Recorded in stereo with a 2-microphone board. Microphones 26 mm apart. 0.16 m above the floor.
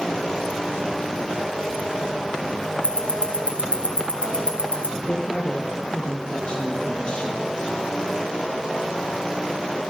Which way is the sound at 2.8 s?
60° left (ahead or behind).